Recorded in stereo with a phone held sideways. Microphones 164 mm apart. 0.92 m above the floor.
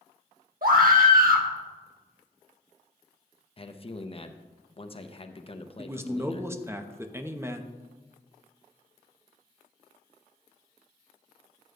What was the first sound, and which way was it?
A scream, 60° right (ahead or behind).